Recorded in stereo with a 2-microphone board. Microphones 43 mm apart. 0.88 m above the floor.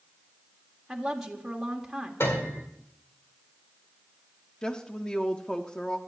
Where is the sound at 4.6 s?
20° left (ahead or behind), 0.9 m.